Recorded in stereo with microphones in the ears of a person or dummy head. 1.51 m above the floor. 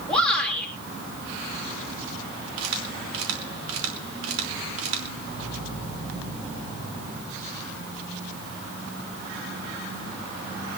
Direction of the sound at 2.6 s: 65° right (ahead or behind).